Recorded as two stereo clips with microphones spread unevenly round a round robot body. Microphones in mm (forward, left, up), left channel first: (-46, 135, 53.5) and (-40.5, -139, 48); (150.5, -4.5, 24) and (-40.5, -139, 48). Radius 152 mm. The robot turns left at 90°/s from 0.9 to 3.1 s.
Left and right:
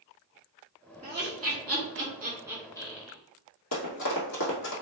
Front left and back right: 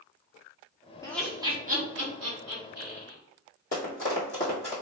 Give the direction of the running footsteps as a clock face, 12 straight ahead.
9 o'clock.